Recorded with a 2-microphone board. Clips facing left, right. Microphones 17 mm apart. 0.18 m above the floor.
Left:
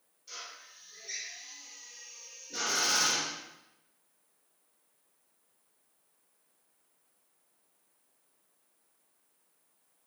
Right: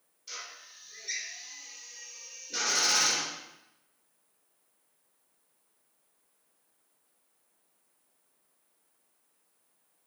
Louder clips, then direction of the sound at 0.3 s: Right 2 dB; 35° right (ahead or behind).